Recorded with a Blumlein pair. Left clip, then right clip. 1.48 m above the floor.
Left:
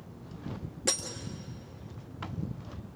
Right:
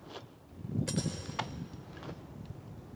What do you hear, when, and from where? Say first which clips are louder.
0.9 s breaking glass: left 8 dB; 40° left, 2.5 m